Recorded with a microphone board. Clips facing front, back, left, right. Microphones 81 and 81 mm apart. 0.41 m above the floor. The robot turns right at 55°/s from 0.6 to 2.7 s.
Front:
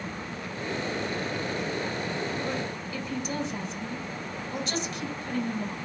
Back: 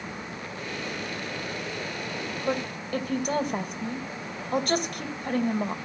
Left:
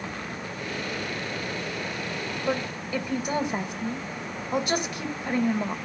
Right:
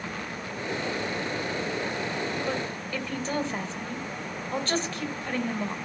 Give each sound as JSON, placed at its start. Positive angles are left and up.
{"t": 2.5, "sound": "a woman speaking", "azimuth_deg": 150, "distance_m": 1.9}